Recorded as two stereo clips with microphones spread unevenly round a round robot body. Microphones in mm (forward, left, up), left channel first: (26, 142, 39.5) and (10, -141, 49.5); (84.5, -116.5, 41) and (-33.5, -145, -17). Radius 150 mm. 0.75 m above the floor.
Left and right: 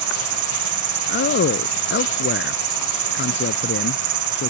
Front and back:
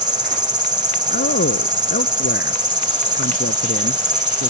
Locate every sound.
0.0 s an insect: 120° right
1.1 s a man speaking: 30° left